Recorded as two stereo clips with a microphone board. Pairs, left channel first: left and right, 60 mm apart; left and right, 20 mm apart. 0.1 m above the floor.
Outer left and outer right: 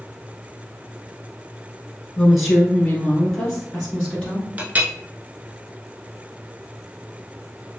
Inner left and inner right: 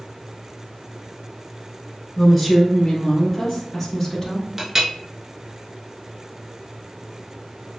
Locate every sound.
2.2 s a woman speaking: centre (ahead or behind), 1.7 m; by 4.5 s 10° left (ahead or behind), 2.0 m
4.6 s a clink: 25° right (ahead or behind), 0.7 m